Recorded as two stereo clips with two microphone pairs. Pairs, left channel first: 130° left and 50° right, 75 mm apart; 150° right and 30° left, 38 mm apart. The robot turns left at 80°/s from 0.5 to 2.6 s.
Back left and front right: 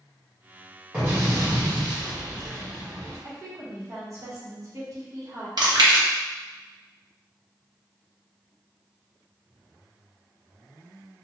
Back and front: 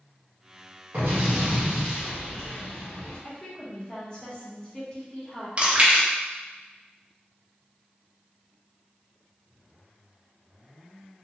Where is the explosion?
25° left, 1.8 m; by 3.2 s 110° right, 1.8 m.